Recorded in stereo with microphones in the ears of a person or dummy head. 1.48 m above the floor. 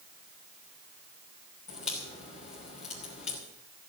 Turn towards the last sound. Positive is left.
turn(degrees=40)  # may be behind; listen again after turning